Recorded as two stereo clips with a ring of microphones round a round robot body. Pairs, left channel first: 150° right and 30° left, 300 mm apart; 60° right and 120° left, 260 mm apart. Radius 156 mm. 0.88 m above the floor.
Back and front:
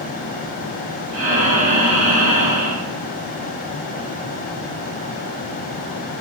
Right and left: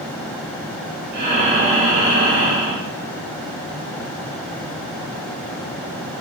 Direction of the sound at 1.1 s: 65° left.